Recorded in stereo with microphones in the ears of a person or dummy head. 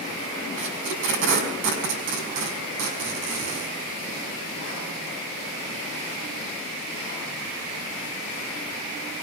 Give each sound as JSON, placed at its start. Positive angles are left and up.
{"t": 0.6, "sound": "tape being pulled", "side_deg": -65, "distance_m": 5.0}